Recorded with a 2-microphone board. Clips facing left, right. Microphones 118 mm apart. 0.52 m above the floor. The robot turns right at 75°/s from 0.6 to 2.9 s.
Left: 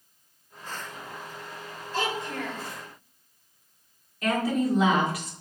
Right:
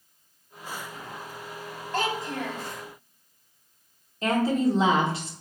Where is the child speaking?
55° right, 1.7 m; by 2.6 s straight ahead, 1.7 m.